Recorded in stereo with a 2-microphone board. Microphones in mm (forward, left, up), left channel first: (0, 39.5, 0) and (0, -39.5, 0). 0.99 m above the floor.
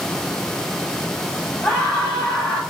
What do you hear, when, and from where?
1.6 s a scream: 15° left (ahead or behind), 7.5 m